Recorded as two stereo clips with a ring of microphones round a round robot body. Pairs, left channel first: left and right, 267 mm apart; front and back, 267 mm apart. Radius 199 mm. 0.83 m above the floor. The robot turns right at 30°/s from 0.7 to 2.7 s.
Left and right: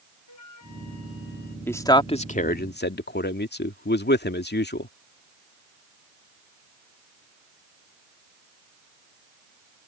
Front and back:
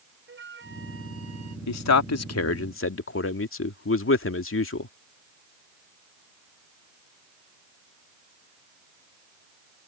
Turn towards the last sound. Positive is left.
turn(degrees=40)